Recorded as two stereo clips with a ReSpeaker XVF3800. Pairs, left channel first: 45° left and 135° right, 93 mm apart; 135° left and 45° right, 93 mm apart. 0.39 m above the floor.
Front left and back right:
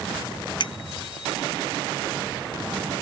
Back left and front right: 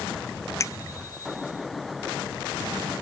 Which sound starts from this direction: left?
A bicycle bell, at 0.6 s.